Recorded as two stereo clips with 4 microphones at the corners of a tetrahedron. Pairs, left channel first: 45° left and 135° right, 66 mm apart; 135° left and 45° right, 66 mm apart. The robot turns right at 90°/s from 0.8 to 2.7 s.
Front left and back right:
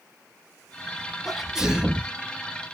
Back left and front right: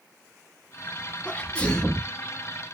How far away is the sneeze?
About 1.0 m.